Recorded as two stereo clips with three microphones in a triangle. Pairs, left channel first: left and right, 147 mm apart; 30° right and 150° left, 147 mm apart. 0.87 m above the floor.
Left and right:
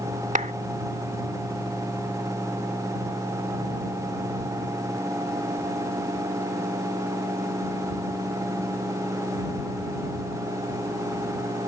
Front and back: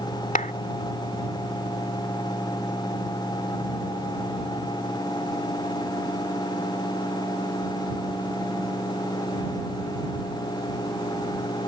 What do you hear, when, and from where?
0.3 s a clap: 60° right